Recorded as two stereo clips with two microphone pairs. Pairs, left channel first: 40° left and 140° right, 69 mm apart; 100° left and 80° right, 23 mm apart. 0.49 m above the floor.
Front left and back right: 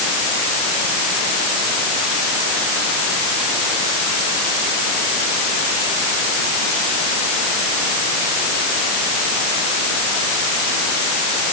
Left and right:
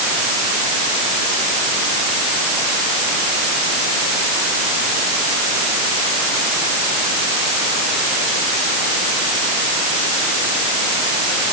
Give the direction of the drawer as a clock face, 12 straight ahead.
I don't hear a drawer.